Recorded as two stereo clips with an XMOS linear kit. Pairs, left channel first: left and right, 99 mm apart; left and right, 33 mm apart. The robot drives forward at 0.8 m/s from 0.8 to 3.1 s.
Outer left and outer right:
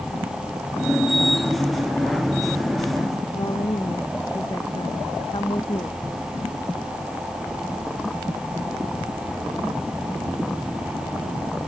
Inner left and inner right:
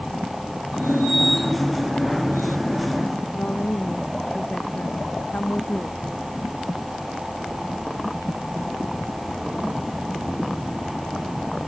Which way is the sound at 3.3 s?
50° left (ahead or behind).